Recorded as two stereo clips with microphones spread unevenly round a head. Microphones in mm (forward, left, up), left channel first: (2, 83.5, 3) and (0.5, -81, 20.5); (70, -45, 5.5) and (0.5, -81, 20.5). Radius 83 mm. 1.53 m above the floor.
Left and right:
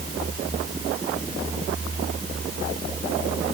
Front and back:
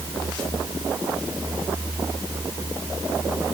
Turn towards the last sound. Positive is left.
No sound to turn to.